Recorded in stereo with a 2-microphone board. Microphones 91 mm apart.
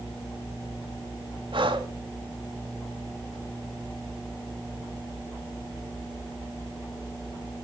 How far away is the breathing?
About 2 m.